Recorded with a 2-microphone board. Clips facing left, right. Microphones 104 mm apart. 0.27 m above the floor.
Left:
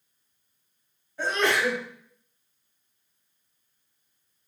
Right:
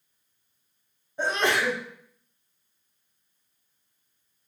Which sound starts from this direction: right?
A sneeze, at 1.2 s.